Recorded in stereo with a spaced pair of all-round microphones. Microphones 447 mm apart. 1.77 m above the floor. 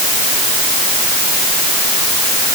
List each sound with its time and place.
Only background noise.